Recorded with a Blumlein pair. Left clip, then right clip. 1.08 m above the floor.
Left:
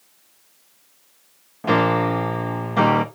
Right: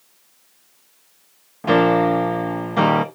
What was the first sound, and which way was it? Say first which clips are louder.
A piano: right 3 dB; straight ahead.